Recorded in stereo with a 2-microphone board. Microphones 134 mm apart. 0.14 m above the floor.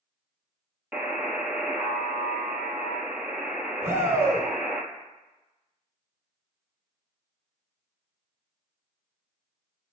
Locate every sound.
0.9 s a buzzer: 10° right (ahead or behind), 0.7 m
3.8 s a shout: 20° right (ahead or behind), 1.2 m